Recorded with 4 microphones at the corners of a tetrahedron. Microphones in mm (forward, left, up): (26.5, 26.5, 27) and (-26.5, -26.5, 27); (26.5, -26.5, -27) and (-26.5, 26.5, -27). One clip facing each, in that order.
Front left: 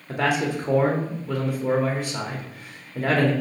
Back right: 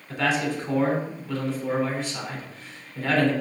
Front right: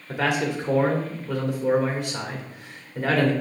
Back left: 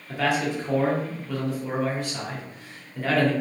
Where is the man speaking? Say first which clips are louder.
Front left 2 dB, even; 20° left, 1.5 m.